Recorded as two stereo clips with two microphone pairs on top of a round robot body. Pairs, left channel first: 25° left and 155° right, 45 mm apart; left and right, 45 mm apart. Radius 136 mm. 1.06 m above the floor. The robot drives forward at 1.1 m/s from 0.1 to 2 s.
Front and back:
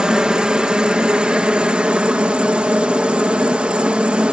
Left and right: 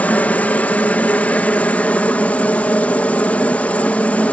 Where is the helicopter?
130° left; by 4.3 s 140° left.